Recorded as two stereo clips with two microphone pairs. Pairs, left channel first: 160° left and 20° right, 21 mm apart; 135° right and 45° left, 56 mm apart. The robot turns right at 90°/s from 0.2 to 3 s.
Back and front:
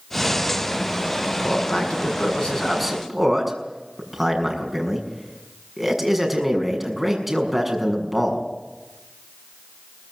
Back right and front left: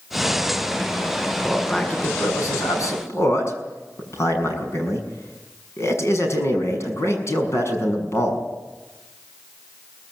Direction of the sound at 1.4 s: 125° left.